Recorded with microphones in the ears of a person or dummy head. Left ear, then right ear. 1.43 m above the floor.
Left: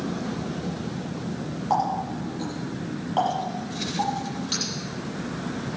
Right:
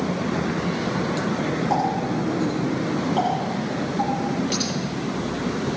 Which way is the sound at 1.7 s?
10° right (ahead or behind).